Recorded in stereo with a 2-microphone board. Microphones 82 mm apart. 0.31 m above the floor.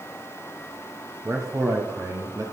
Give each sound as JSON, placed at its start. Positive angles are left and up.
{"t": 1.2, "sound": "a man speaking", "side_deg": -40, "distance_m": 2.0}